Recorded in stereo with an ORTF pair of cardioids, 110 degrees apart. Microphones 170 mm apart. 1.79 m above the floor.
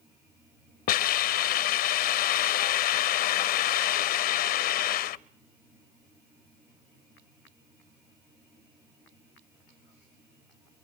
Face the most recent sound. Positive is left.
turn(degrees=70)